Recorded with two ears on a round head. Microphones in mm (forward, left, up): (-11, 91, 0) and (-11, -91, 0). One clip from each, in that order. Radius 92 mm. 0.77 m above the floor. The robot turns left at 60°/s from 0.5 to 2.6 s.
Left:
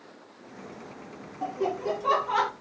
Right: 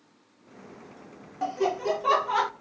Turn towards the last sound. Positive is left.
turn(degrees=-175)